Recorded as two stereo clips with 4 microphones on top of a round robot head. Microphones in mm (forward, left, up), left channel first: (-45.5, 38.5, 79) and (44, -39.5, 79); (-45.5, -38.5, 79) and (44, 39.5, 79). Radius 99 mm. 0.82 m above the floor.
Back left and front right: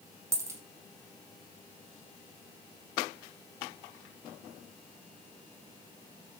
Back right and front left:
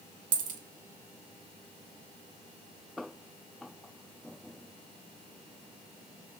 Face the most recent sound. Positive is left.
turn(degrees=25)